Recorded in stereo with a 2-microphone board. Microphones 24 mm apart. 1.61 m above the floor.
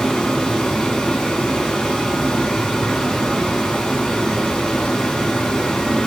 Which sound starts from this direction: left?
Running water, at 0.0 s.